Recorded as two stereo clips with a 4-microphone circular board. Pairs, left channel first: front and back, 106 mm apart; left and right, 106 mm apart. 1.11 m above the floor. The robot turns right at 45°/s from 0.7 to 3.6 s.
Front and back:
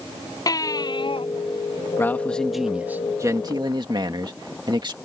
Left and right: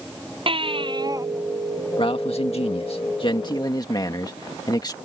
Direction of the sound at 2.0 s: 65° left.